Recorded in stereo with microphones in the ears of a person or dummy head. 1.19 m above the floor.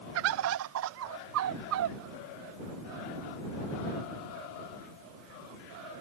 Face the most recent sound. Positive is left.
turn(degrees=-70)  # may be behind; listen again after turning